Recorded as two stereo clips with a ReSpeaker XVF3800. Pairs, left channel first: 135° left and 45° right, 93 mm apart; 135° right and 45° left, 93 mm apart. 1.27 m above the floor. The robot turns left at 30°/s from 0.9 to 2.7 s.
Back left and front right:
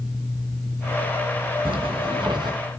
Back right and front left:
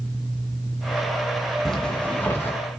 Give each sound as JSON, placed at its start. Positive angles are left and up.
{"t": 1.6, "sound": "a zipper", "azimuth_deg": -50, "distance_m": 2.0}